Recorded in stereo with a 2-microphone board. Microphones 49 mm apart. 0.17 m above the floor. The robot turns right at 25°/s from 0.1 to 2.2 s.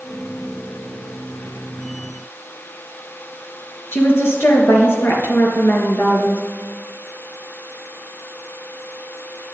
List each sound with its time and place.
3.9 s a woman speaking: 60° left (ahead or behind), 3.5 m